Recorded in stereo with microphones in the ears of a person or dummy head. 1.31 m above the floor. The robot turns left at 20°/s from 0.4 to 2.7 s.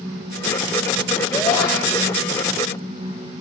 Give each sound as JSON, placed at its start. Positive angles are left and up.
{"t": 1.3, "sound": "a shout", "side_deg": 15, "distance_m": 7.0}